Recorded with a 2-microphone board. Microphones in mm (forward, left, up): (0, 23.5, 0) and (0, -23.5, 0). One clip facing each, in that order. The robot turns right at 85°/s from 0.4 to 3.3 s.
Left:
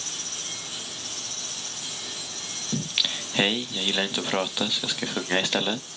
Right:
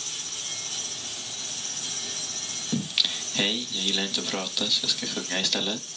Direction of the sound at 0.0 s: 130° left.